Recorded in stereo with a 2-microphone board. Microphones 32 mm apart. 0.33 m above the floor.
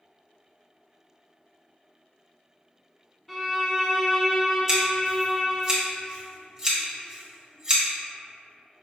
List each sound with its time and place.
3.3 s a violin: centre (ahead or behind), 0.6 m
4.7 s scissors: 15° right (ahead or behind), 1.2 m